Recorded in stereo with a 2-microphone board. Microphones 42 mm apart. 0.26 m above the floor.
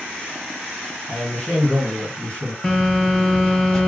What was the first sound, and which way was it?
A man speaking, 40° left (ahead or behind).